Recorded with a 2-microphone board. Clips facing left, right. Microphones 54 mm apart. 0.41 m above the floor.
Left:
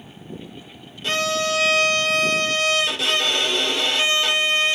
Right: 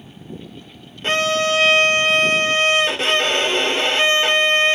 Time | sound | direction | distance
1.0 | a violin | 35° right (ahead or behind) | 0.8 m